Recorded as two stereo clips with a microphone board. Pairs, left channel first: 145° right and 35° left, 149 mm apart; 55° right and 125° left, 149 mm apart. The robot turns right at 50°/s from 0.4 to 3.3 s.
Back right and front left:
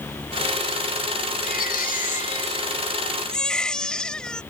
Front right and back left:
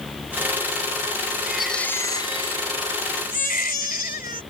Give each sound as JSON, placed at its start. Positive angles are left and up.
{"t": 1.4, "sound": "a baby crying", "azimuth_deg": -155}